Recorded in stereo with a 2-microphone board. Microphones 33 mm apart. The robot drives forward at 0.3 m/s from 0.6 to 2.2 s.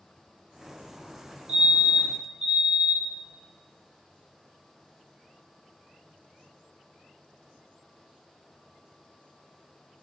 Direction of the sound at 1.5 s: 30° right (ahead or behind).